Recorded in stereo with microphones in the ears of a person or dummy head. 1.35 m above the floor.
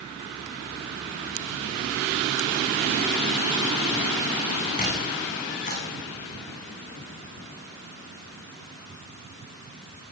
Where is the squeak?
40° left (ahead or behind), 9.5 m.